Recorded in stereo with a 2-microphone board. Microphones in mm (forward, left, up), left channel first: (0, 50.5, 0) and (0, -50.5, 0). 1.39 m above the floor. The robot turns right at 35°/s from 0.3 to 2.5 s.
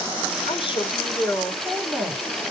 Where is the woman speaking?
115° left, 5.5 m; by 2.2 s straight behind, 5.5 m.